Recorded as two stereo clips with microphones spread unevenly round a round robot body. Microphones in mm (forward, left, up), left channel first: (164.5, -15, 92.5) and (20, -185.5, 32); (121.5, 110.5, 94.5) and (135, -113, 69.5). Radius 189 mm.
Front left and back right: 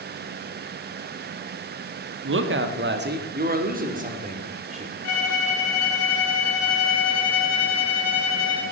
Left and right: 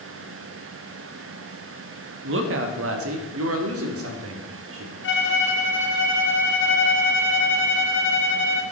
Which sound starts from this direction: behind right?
A woman speaking, at 2.2 s.